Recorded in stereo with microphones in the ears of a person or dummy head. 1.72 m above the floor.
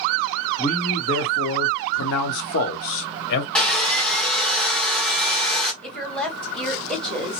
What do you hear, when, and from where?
0.6 s a man speaking: 30° left (ahead or behind), 1.1 m; by 3.5 s 60° left (ahead or behind), 1.1 m
3.5 s sawing: 5° left (ahead or behind), 0.9 m
5.8 s a woman speaking: 5° left (ahead or behind), 1.6 m